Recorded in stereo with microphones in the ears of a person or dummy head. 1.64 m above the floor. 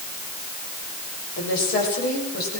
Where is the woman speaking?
55° left (ahead or behind), 7 m; by 2.6 s 50° left (ahead or behind), 8 m.